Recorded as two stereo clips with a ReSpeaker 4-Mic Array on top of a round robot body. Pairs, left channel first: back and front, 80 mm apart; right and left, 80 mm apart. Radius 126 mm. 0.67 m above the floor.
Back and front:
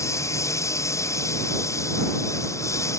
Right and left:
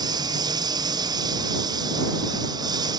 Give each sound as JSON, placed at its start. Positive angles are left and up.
{"t": 0.0, "sound": "a lawn mower", "azimuth_deg": 125}